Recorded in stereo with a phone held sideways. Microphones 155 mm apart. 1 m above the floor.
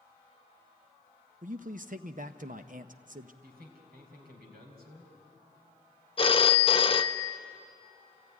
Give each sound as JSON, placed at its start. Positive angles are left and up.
{"t": 1.4, "sound": "a man speaking", "side_deg": -60, "distance_m": 0.6}
{"t": 3.4, "sound": "a man speaking", "side_deg": -85, "distance_m": 4.5}
{"t": 6.2, "sound": "a phone ringing", "side_deg": 35, "distance_m": 0.6}